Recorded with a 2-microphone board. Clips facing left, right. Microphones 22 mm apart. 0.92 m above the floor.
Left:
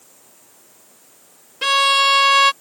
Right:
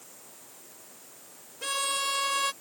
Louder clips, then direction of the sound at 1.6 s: Left 15 dB; 70° left (ahead or behind).